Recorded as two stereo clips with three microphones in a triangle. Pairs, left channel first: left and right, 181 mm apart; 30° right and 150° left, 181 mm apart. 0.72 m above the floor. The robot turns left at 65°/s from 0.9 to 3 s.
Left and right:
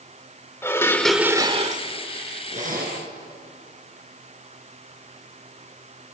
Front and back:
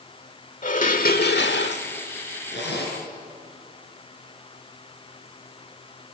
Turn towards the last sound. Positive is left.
turn(degrees=-70)